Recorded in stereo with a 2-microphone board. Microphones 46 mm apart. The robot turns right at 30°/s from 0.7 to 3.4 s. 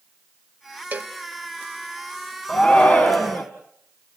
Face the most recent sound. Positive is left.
turn(degrees=40)  # may be behind; listen again after turning